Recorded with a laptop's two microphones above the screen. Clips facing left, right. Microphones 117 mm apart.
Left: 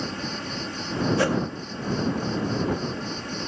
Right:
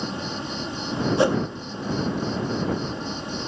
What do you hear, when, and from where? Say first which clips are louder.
0.0 s an insect: right 1 dB; 20° right (ahead or behind)
1.2 s a whoosh: right 4 dB; 20° right (ahead or behind)